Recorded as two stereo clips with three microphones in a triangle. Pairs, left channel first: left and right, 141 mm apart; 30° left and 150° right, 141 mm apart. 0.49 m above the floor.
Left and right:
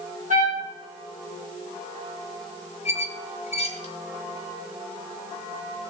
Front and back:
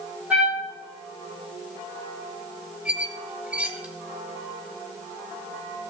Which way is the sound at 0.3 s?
70° right.